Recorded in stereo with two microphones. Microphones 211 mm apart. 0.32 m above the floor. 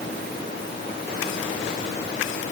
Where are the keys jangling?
No keys jangling in this recording.